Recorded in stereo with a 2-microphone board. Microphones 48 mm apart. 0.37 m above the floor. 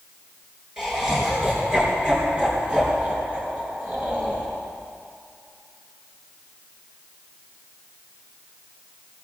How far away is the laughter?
About 5.5 m.